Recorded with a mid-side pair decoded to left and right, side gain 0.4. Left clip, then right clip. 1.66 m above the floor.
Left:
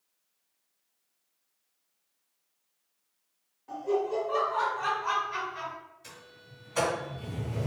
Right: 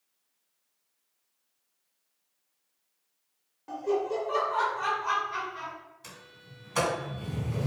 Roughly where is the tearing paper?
No tearing paper in this recording.